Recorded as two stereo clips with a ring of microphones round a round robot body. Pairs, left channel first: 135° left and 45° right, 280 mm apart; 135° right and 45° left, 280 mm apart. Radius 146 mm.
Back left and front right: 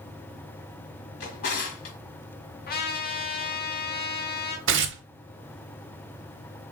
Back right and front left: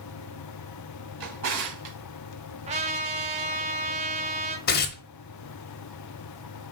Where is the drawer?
80° left, 1.4 m.